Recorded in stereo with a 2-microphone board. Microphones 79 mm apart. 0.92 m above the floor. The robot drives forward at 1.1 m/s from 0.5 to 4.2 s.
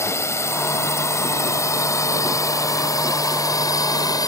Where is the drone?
40° left (ahead or behind); by 4.3 s 55° left (ahead or behind).